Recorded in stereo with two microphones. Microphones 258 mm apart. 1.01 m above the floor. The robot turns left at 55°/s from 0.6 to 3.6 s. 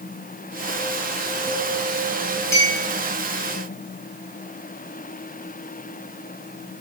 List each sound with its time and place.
2.5 s a clink: 10° left (ahead or behind), 3 m; by 2.8 s 5° right (ahead or behind), 3 m